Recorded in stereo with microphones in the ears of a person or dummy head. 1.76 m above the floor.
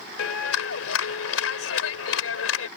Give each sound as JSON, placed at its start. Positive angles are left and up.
{"t": 0.2, "sound": "a clap", "side_deg": 85}